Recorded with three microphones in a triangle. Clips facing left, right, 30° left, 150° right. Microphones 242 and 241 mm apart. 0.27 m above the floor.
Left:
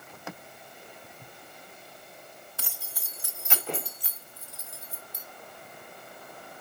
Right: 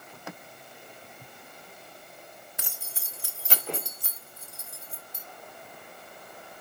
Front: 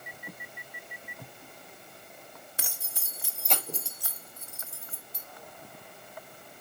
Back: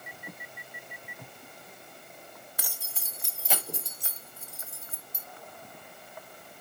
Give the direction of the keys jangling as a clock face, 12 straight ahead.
1 o'clock.